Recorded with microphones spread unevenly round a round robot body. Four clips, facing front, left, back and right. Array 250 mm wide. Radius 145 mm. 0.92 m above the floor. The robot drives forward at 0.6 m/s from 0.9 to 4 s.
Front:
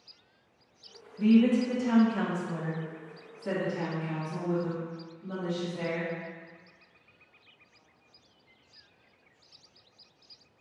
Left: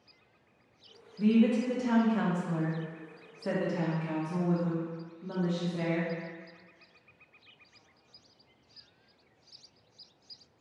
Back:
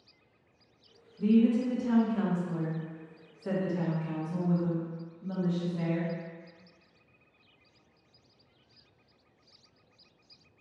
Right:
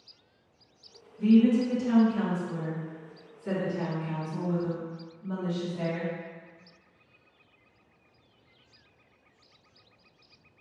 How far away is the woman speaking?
About 1.7 m.